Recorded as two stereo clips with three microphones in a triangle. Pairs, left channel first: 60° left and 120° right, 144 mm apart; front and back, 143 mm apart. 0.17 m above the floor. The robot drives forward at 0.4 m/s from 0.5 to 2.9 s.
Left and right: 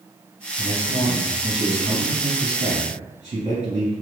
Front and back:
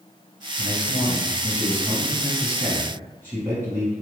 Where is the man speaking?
85° right, 2.0 m; by 3.9 s 115° right, 2 m.